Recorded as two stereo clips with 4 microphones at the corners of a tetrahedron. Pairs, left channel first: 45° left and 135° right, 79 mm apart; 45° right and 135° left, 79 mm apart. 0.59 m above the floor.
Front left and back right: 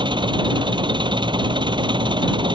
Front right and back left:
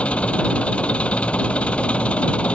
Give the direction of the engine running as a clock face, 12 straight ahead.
4 o'clock.